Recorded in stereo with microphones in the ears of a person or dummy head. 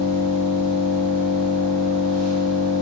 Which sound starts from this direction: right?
An engine running, at 0.0 s.